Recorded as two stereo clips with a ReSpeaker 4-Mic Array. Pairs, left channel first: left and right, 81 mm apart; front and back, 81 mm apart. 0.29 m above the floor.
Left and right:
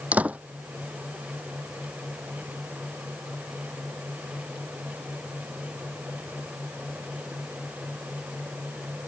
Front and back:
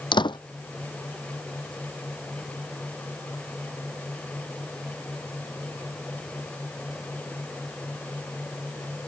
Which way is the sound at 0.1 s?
20° right.